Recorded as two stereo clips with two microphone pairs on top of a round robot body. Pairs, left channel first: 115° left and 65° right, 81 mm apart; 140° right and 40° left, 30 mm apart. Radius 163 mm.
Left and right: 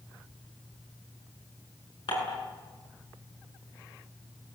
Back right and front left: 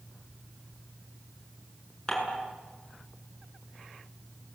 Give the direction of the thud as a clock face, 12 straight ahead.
I don't hear a thud.